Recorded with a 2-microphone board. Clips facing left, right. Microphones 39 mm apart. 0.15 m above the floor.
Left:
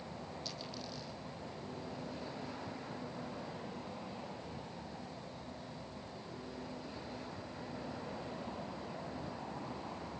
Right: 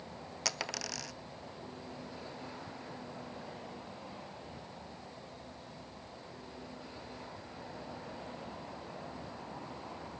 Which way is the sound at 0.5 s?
85° right.